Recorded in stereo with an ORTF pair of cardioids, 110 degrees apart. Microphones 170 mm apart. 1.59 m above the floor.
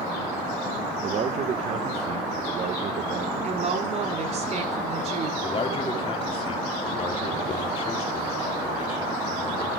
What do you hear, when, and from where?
1.0 s a man speaking: 40° right, 1.3 m
3.4 s a woman speaking: 40° right, 4.5 m
5.4 s a man speaking: 35° left, 3 m